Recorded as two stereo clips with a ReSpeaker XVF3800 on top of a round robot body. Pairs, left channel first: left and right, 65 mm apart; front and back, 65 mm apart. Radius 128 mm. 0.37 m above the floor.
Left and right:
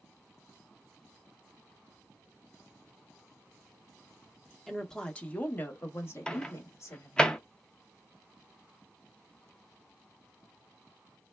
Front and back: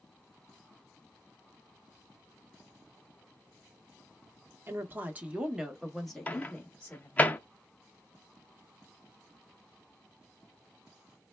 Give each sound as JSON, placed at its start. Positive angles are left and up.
{"t": 4.7, "sound": "a woman speaking", "azimuth_deg": 175, "distance_m": 0.9}
{"t": 6.3, "sound": "a microwave", "azimuth_deg": 30, "distance_m": 0.6}